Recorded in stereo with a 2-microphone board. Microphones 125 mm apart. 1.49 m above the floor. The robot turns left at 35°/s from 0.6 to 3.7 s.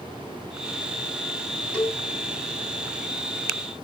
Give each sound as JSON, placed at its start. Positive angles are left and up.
{"t": 1.7, "sound": "a cowbell", "side_deg": 10, "distance_m": 2.5}